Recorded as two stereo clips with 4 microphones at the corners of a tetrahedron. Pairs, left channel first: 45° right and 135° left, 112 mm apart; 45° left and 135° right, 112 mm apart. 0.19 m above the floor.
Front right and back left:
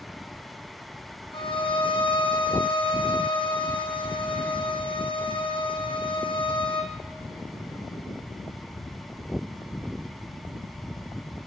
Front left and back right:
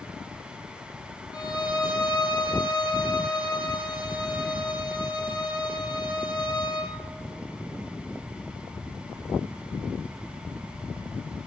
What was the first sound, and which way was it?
A violin, 5° right.